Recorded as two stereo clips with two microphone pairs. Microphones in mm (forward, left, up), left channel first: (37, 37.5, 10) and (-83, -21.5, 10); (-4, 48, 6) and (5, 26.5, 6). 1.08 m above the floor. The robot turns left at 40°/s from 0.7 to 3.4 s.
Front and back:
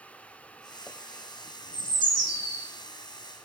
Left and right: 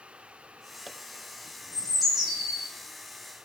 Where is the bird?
30° left, 3 m; by 2.6 s 5° right, 3 m.